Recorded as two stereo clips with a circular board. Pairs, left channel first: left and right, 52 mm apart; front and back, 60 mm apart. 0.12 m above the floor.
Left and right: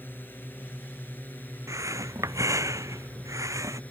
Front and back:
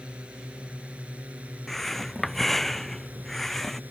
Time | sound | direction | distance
0.0 | a drone | 120° left | ?
1.7 | breathing | 85° right | ?